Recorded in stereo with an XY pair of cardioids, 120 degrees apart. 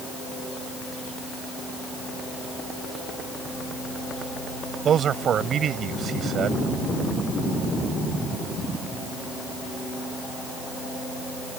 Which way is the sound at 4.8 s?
50° right.